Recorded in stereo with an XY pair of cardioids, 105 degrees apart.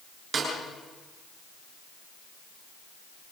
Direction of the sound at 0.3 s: 45° right.